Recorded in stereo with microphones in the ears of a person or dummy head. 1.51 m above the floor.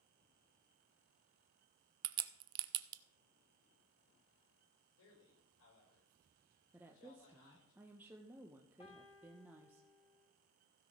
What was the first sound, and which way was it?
A crack, 30° right (ahead or behind).